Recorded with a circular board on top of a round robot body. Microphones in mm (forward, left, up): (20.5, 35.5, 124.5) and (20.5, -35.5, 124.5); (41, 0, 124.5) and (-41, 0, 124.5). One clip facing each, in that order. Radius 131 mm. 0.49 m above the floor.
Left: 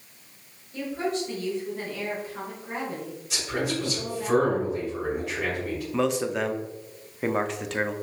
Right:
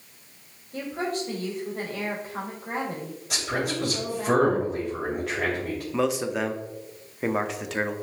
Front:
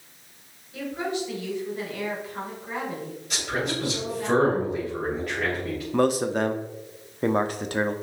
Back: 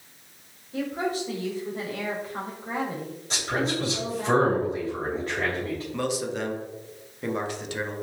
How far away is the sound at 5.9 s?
About 1.1 m.